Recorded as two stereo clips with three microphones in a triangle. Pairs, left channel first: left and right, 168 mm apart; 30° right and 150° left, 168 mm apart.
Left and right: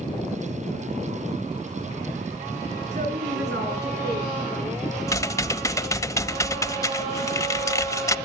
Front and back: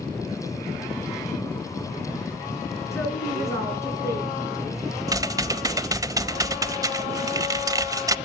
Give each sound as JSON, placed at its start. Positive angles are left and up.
{"t": 2.9, "sound": "a woman speaking", "azimuth_deg": -105, "distance_m": 8.0}
{"t": 5.1, "sound": "typing on a keyboard", "azimuth_deg": 125, "distance_m": 0.5}